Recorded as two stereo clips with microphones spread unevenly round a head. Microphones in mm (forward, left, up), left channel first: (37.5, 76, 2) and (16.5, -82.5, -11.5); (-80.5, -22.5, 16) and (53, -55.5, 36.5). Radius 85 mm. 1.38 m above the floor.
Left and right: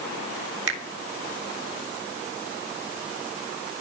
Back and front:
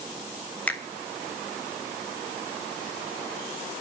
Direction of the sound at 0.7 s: 110° right.